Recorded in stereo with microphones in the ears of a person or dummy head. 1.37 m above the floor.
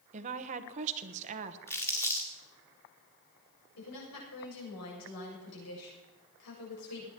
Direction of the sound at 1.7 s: 15° left (ahead or behind).